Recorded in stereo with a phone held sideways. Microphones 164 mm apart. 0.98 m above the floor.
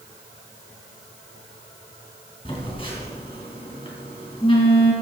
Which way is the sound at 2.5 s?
30° left (ahead or behind).